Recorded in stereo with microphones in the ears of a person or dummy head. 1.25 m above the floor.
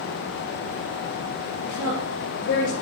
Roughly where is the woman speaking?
Left.